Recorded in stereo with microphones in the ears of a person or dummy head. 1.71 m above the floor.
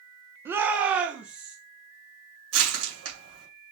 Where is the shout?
10° right (ahead or behind), 0.7 m; by 1.6 s 5° right (ahead or behind), 1.3 m.